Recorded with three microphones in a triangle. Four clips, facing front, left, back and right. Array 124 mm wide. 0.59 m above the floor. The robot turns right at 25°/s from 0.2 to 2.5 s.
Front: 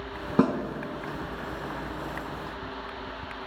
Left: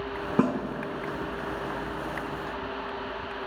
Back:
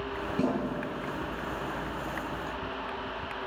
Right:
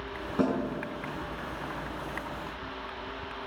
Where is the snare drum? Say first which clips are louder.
Left 2 dB, front 6 dB; 40° left, 4 m; by 0.6 s 45° left, 4 m.